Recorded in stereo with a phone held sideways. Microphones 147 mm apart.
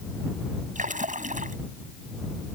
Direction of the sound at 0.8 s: 60° right (ahead or behind).